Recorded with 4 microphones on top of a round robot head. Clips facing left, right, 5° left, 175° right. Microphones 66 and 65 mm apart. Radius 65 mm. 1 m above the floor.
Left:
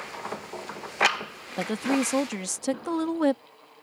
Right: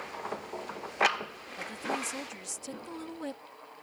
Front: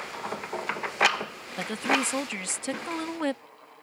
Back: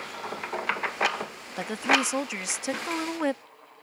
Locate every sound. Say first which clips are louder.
1.6 s a woman speaking: left 9 dB, back 2 dB; 105° left